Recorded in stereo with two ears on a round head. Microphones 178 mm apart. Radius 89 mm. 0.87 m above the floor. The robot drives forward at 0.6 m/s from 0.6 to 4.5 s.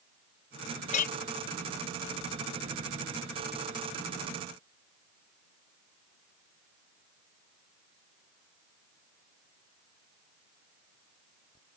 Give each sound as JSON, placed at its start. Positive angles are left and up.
{"t": 0.9, "sound": "a clink", "side_deg": 35}